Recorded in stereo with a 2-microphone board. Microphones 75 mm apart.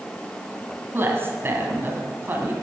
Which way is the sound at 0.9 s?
30° right (ahead or behind).